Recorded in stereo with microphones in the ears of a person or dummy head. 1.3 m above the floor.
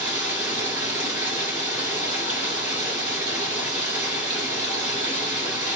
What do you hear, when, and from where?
0.0 s running water: 10° right (ahead or behind), 2.5 m